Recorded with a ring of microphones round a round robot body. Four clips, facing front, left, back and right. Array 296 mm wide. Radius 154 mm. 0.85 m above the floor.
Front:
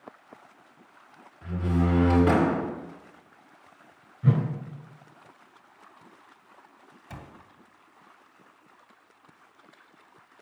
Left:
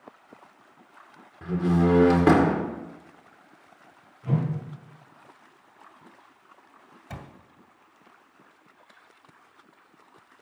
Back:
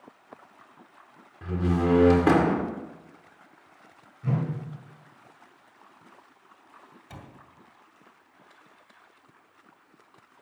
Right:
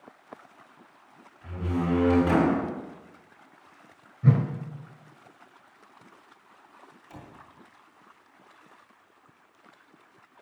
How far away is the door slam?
About 2 m.